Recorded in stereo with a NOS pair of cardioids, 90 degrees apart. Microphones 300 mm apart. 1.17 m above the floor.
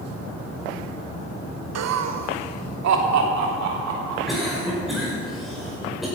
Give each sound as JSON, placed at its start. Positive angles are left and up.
{"t": 1.8, "sound": "laughter", "azimuth_deg": -60, "distance_m": 0.9}
{"t": 4.3, "sound": "a cough", "azimuth_deg": 0, "distance_m": 4.5}